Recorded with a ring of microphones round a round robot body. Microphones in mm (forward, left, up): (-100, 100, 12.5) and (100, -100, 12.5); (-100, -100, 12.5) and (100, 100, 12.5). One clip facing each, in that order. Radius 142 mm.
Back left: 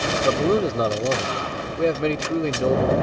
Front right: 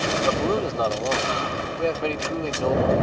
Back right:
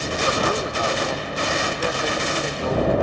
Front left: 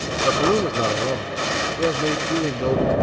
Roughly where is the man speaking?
Left.